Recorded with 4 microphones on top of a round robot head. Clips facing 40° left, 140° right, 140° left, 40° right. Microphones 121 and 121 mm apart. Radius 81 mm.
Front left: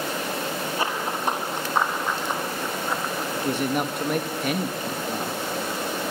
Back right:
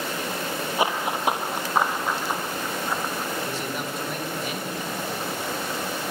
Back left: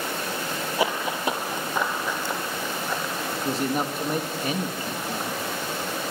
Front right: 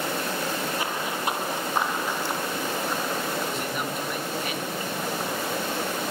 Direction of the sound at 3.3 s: 80° left.